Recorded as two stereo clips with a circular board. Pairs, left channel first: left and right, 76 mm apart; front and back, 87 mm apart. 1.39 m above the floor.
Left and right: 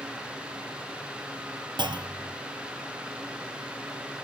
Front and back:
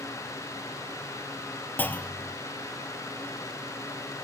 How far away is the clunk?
About 1.0 m.